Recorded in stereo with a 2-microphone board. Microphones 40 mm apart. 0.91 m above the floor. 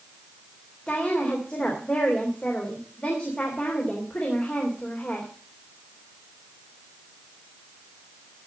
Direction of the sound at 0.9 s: 35° left (ahead or behind).